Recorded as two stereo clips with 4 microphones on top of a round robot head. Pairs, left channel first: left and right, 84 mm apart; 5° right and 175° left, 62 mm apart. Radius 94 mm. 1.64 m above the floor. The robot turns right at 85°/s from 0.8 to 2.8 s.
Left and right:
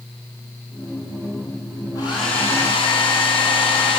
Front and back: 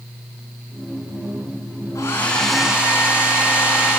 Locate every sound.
1.9 s a hair dryer: 35° left, 5.5 m; by 4.0 s 105° left, 5.5 m